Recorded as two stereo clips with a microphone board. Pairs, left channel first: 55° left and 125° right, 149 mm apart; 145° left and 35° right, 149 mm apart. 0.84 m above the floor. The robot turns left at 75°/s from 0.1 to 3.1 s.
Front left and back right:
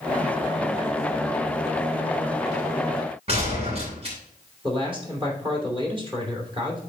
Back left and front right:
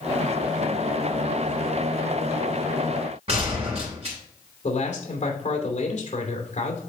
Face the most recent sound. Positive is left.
turn(degrees=180)